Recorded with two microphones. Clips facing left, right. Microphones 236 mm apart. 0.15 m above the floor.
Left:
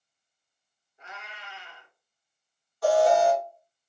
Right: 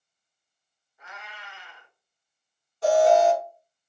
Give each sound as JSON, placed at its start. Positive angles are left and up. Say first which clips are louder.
{"t": 1.0, "sound": "a cat meowing", "louder": "even", "side_deg": 30, "distance_m": 0.9}
{"t": 2.8, "sound": "an alarm", "louder": "right 2 dB", "side_deg": -25, "distance_m": 1.7}